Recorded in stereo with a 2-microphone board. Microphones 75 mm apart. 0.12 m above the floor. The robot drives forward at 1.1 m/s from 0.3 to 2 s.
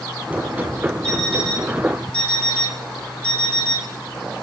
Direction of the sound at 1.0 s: 10° left (ahead or behind).